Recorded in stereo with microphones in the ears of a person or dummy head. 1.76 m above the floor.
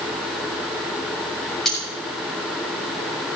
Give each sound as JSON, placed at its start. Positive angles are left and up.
{"t": 1.6, "sound": "cutlery clinking", "side_deg": 0, "distance_m": 7.5}